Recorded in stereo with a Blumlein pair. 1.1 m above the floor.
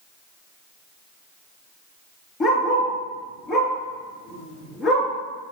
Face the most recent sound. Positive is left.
turn(degrees=25)